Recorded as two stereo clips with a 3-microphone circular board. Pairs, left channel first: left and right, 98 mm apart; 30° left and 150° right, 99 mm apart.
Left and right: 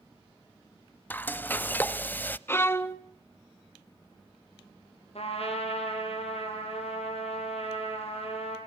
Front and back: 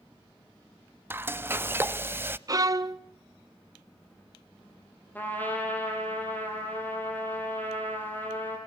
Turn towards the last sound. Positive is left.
turn(degrees=105)